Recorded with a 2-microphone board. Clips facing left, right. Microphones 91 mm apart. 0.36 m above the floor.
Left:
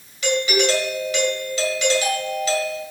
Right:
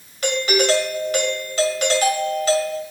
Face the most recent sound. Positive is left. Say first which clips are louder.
# right 1 dB
turn(degrees=-45)  # may be behind; listen again after turning